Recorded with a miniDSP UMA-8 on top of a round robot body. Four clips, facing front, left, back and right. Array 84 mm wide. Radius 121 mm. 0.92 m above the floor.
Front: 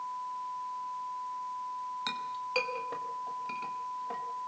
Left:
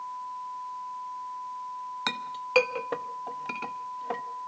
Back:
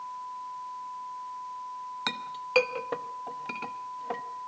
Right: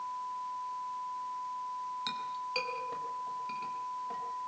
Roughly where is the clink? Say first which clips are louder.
Left 3 dB, back 1 dB; behind left.